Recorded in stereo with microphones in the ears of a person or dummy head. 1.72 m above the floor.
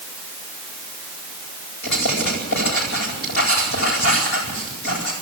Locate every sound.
1.8 s writing: 65° left (ahead or behind), 10 m